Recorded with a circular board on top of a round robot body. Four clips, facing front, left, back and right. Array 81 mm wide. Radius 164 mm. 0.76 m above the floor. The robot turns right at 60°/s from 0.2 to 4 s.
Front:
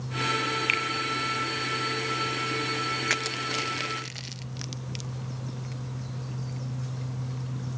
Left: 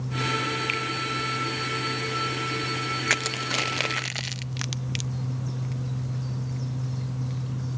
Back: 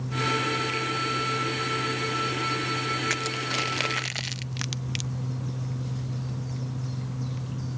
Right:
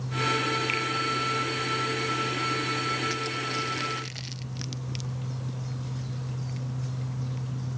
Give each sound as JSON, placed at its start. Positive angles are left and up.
{"t": 0.7, "sound": "a finger snap", "azimuth_deg": 10, "distance_m": 3.0}
{"t": 3.1, "sound": "crushing", "azimuth_deg": 75, "distance_m": 0.6}